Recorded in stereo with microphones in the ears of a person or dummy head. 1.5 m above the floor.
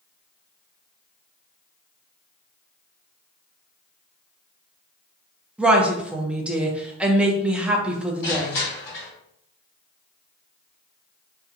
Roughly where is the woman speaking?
Centre.